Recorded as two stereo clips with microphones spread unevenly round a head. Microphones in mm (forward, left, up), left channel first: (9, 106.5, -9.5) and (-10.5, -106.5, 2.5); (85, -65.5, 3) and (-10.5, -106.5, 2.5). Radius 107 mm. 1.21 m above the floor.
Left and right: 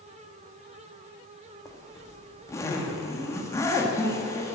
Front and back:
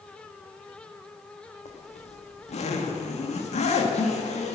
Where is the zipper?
5° left, 1.9 m.